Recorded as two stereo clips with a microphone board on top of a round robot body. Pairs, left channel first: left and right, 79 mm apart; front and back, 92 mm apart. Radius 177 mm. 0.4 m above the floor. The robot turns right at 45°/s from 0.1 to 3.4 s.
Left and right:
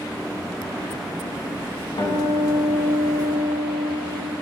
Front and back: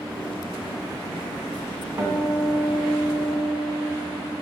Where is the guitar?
105° left, 2.5 m; by 4.3 s 170° left, 2.5 m.